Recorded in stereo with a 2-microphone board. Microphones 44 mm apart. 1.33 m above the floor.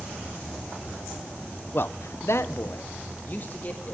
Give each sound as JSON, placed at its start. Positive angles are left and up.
{"t": 1.7, "sound": "a man speaking", "side_deg": 50, "distance_m": 0.6}